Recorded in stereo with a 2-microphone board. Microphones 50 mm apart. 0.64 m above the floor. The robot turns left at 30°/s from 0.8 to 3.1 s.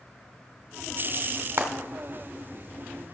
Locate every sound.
1.6 s frying: 65° right (ahead or behind), 1.7 m; by 1.7 s 70° right (ahead or behind), 1.7 m